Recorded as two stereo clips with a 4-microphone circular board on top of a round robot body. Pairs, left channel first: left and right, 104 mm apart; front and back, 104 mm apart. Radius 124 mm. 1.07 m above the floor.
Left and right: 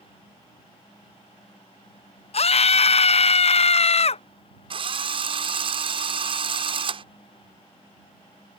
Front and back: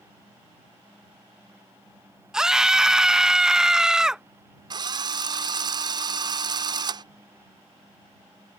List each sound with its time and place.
2.3 s a scream: 95° left
4.7 s a drill: 130° right